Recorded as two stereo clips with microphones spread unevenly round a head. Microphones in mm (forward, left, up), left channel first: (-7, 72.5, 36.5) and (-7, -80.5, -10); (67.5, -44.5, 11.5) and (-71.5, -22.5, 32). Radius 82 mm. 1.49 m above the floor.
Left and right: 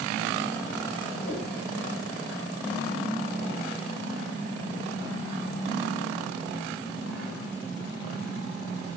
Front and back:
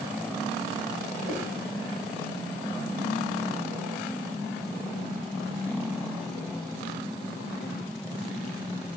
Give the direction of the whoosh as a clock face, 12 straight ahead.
8 o'clock.